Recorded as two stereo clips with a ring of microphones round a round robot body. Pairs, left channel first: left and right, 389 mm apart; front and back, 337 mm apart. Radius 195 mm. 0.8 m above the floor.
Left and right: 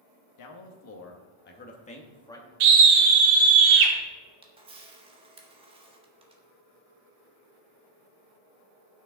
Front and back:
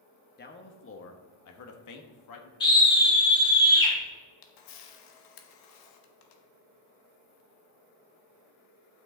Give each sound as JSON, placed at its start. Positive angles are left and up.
{"t": 0.4, "sound": "a man speaking", "azimuth_deg": 60, "distance_m": 1.4}
{"t": 2.6, "sound": "a scream", "azimuth_deg": -80, "distance_m": 2.5}
{"t": 4.4, "sound": "a camera shutter", "azimuth_deg": -15, "distance_m": 1.2}